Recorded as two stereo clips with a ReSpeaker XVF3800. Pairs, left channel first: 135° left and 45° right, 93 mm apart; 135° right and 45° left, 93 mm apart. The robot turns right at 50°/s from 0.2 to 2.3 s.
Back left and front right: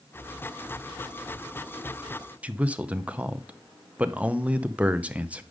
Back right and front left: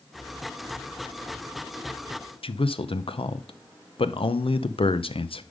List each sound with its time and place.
2.4 s a man speaking: 120° right, 0.7 m